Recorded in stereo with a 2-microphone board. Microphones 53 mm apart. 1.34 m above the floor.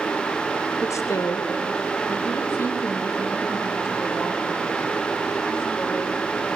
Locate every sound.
0.8 s a woman speaking: 65° left (ahead or behind), 0.7 m; by 6.6 s 50° left (ahead or behind), 5.5 m